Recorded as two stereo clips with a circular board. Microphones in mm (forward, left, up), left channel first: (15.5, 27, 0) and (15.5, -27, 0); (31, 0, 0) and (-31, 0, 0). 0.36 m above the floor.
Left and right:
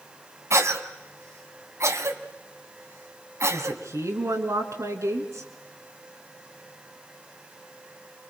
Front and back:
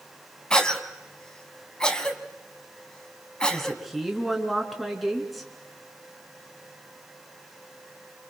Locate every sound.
0.5 s a cough: 75° right, 2.5 m
3.5 s a woman speaking: 90° right, 3.5 m